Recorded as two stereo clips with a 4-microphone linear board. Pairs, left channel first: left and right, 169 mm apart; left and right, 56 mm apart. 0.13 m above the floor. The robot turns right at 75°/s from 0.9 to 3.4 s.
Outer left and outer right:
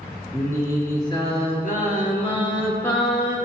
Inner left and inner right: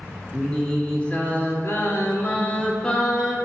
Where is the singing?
20° left, 3 m; by 3.4 s 155° right, 3 m.